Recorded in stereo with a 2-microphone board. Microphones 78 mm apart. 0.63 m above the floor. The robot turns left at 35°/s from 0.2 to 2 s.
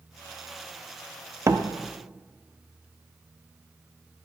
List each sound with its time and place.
1.5 s a door slam: 35° right (ahead or behind), 0.7 m